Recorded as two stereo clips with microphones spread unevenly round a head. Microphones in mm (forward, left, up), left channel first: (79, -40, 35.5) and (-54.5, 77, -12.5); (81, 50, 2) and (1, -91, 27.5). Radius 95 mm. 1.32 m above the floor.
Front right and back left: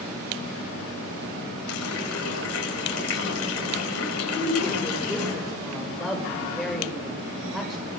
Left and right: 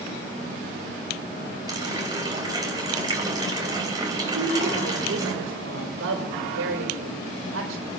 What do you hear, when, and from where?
1.7 s a running tap: 55° right, 5.5 m
4.3 s a woman speaking: 130° right, 6 m